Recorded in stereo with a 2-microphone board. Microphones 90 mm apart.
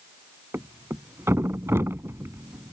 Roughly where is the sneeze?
I don't hear a sneeze.